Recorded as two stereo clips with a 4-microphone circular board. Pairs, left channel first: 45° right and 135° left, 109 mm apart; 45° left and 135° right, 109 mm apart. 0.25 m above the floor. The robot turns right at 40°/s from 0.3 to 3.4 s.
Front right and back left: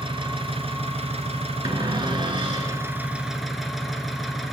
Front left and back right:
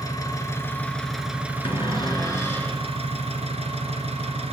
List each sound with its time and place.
0.0 s an engine running: 100° left, 1.4 m; by 4.5 s 135° right, 1.4 m
1.6 s a cupboard door: 80° left, 1.7 m; by 2.8 s 125° left, 1.7 m